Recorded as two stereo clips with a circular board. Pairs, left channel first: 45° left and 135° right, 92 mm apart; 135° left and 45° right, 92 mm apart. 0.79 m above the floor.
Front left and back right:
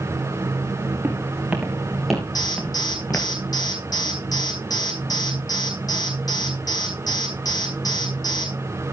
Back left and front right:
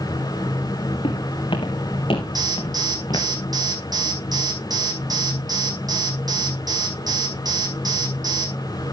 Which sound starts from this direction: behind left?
Footsteps, at 1.0 s.